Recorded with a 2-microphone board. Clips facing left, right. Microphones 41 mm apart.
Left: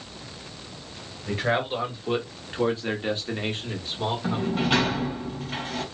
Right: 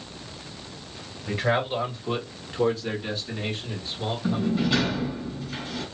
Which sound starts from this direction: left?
A sliding door, at 4.2 s.